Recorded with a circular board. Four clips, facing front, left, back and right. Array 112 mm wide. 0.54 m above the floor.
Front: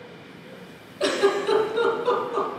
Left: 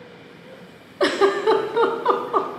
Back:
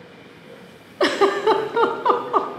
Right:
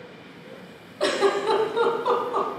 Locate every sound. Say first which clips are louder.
1.0 s a giggle: left 4 dB, back 4 dB; 160° left, 0.9 m